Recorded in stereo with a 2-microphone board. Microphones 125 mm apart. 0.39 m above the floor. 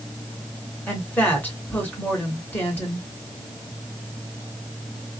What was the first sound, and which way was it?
A woman speaking, 15° left (ahead or behind).